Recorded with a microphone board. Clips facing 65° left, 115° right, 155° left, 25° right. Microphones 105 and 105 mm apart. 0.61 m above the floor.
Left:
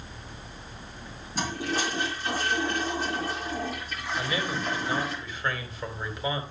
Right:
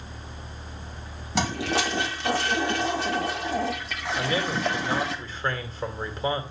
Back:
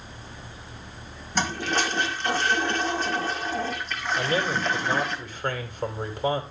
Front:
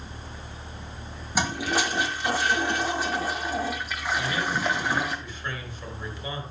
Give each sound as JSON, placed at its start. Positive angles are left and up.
{"t": 1.4, "sound": "a toilet flushing", "azimuth_deg": -105, "distance_m": 1.6}
{"t": 4.2, "sound": "a man speaking", "azimuth_deg": -165, "distance_m": 2.5}